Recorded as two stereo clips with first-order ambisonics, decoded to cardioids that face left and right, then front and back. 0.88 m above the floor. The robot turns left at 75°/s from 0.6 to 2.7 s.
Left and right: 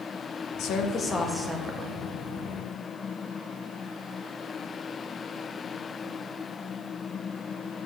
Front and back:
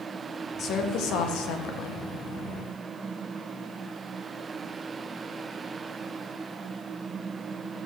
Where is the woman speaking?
55° left, 0.7 m; by 2.0 s 50° right, 0.7 m.